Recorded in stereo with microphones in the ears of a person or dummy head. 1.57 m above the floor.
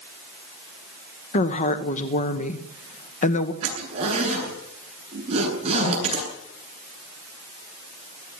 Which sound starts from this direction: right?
A zipper, at 3.6 s.